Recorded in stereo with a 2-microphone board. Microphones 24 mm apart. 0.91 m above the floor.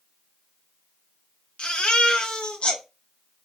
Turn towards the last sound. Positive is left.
turn(degrees=55)  # may be behind; listen again after turning